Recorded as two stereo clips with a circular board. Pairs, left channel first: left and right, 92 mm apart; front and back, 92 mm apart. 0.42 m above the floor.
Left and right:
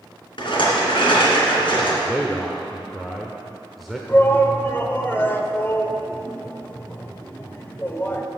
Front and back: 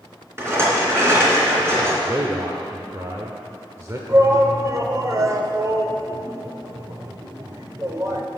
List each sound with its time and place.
0.4 s a rattle: 120° left, 3 m
2.0 s a man speaking: straight behind, 0.9 m
4.1 s a shout: 145° left, 1.1 m